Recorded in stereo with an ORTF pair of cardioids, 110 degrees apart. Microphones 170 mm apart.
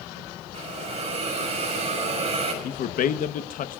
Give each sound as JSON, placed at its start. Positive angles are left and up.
{"t": 0.5, "sound": "a hiss", "azimuth_deg": -40, "distance_m": 5.5}
{"t": 2.6, "sound": "a man speaking", "azimuth_deg": 55, "distance_m": 1.1}